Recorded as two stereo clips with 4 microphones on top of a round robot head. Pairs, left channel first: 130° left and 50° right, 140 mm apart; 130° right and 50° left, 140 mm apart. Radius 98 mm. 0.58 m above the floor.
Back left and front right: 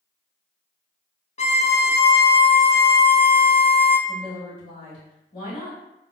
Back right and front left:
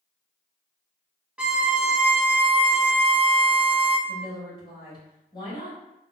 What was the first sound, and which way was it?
A violin, 125° left.